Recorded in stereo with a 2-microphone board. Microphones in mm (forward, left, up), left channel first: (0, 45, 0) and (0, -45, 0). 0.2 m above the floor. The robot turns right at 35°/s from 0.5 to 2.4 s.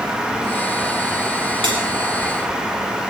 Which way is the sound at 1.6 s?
70° right (ahead or behind).